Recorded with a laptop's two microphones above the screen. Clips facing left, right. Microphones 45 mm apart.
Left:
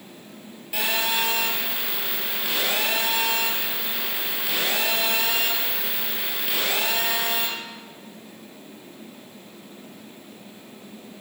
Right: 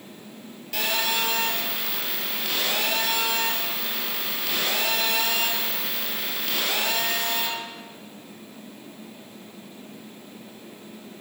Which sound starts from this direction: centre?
A phone buzzing, at 0.7 s.